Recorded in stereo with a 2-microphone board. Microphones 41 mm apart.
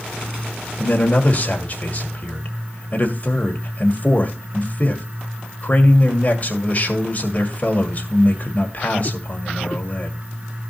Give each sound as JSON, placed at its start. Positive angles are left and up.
{"t": 0.8, "sound": "a man speaking", "side_deg": 35, "distance_m": 1.8}